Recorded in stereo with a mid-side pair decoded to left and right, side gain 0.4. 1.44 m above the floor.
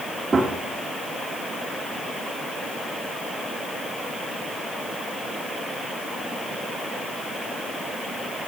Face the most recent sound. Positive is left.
turn(degrees=-40)